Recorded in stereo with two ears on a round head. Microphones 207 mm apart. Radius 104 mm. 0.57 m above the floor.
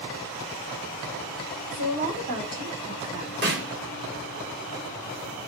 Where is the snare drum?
45° right (ahead or behind), 1.8 m.